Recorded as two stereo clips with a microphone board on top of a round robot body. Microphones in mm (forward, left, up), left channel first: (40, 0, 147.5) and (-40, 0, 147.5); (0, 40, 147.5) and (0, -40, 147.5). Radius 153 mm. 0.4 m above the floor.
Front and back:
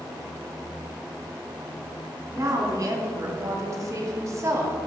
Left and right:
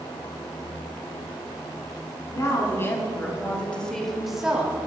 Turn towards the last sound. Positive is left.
turn(degrees=-150)